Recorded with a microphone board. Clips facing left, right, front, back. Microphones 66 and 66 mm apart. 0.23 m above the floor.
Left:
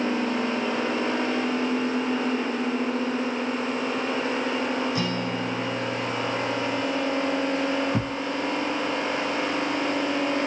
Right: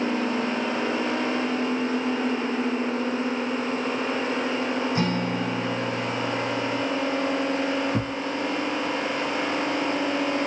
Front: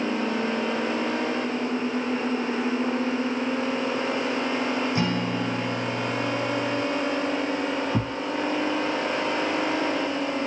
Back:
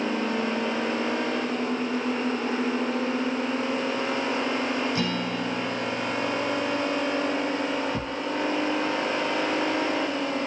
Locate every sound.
5.0 s a guitar: 50° right, 1.0 m
7.9 s a thud: 15° left, 0.9 m